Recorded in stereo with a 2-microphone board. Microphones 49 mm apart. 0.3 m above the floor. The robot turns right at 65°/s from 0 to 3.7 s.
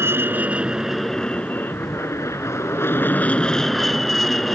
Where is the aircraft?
65° right; by 4.5 s 175° left.